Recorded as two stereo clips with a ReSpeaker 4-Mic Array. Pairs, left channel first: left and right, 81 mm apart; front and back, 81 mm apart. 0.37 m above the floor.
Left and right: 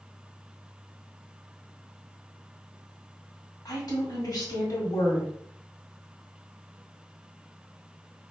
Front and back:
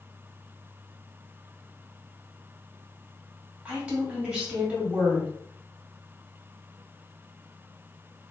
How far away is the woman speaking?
About 1.7 m.